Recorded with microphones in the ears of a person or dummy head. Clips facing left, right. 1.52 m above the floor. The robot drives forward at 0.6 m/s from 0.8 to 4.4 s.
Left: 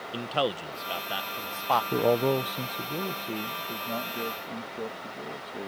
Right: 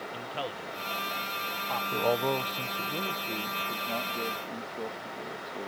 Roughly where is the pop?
No pop in this recording.